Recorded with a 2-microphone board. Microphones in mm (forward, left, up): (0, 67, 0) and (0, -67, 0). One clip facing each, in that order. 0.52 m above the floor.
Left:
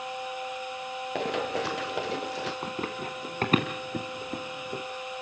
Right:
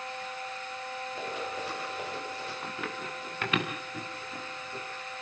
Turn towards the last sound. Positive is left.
turn(degrees=55)  # may be behind; listen again after turning